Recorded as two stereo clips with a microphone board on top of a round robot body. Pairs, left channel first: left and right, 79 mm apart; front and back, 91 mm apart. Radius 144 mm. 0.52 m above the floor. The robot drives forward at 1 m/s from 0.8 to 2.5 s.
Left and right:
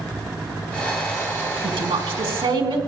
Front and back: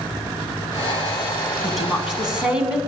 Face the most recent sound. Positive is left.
turn(degrees=-100)